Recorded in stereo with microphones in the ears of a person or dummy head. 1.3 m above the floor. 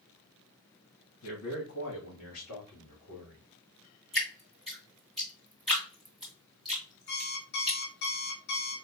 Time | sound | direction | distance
1.2 | a man speaking | 75° left (ahead or behind) | 2.5 m
4.1 | dripping | centre (ahead or behind) | 2 m
7.1 | an alarm clock | 55° left (ahead or behind) | 1.5 m